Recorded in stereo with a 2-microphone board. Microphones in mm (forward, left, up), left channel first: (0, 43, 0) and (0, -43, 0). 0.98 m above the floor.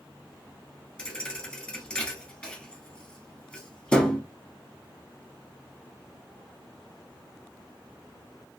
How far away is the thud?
About 1.1 m.